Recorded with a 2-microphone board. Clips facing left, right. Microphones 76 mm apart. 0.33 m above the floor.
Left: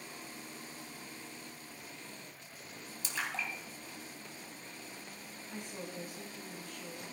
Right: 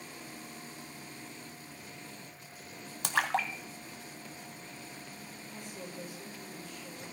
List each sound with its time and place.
3.0 s a splash: 65° right (ahead or behind), 0.8 m
5.5 s a woman speaking: 65° left (ahead or behind), 5.5 m